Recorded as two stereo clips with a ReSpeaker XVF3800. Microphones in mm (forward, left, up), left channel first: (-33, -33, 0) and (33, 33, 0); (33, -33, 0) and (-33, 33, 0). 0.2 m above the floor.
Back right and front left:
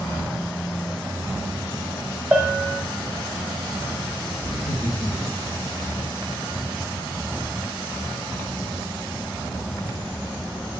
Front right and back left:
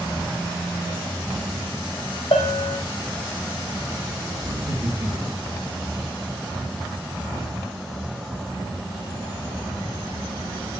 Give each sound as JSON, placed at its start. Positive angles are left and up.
{"t": 2.3, "sound": "a bell", "azimuth_deg": -30, "distance_m": 2.0}
{"t": 4.4, "sound": "laughter", "azimuth_deg": -175, "distance_m": 3.0}